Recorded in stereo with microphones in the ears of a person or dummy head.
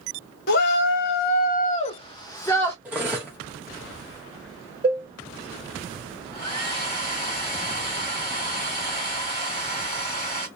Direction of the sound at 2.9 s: 10° right (ahead or behind).